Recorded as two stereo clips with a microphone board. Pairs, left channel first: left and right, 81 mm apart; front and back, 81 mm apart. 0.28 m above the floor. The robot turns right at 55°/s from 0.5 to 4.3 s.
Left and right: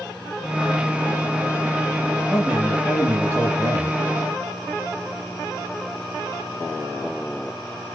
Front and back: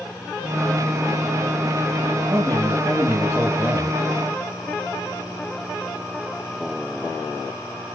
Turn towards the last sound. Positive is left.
turn(degrees=-70)